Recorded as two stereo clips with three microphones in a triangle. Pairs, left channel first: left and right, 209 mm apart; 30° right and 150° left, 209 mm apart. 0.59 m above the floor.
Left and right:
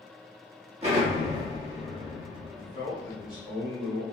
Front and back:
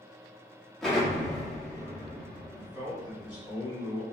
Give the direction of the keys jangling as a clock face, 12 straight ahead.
I don't hear keys jangling.